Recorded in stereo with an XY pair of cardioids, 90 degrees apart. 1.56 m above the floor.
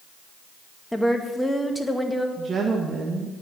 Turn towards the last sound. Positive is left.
turn(degrees=-45)